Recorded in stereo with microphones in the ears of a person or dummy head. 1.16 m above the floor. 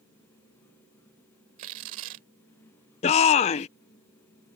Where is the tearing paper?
45° right (ahead or behind).